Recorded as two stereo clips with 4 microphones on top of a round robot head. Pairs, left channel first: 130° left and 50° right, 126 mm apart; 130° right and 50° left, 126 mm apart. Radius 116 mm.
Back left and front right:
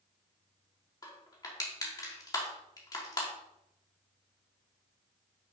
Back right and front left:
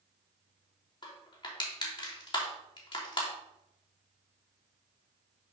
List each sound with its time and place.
1.0 s crushing: 175° right, 2.5 m